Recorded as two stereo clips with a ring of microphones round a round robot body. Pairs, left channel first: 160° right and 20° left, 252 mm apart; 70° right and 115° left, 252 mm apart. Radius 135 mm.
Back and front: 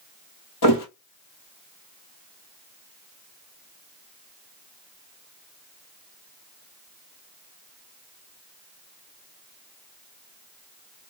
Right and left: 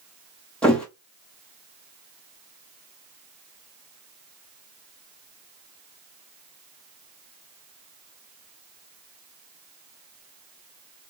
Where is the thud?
155° right, 1.2 m.